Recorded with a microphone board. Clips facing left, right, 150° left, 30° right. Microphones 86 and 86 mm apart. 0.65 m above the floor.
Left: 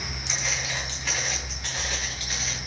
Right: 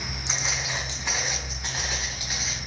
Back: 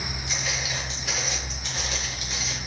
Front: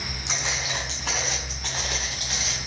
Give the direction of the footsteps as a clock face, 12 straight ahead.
1 o'clock.